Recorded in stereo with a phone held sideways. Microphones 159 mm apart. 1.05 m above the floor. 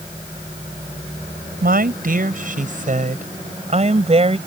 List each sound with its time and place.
1.6 s a woman speaking: 65° right (ahead or behind); by 4.4 s 40° right (ahead or behind)